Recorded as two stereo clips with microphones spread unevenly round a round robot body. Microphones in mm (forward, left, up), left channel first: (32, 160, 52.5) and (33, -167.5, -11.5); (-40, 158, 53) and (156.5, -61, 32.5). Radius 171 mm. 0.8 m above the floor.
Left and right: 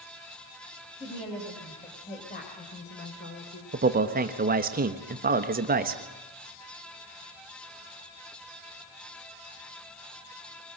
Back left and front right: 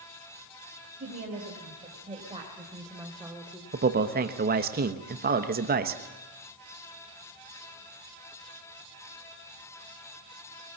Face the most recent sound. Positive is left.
turn(degrees=-75)